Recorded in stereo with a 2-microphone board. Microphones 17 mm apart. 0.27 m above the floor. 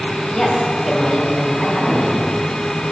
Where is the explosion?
No explosion in this recording.